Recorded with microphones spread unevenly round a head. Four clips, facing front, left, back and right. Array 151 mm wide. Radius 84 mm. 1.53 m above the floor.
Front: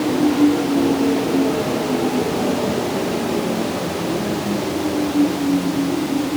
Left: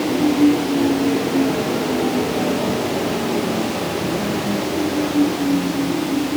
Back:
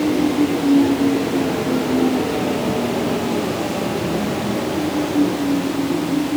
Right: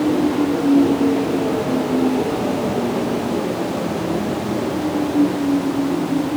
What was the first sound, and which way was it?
Only background noise.